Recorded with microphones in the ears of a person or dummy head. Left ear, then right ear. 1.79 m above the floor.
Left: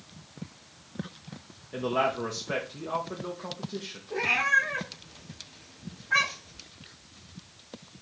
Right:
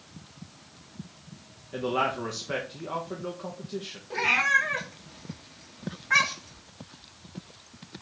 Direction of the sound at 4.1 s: 50° right (ahead or behind).